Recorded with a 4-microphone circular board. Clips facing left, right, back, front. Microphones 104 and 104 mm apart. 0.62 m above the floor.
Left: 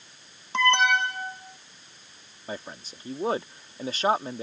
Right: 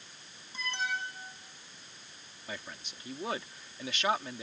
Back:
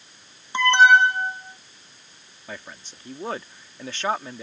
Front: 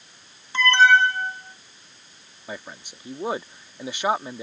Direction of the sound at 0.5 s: 110° left.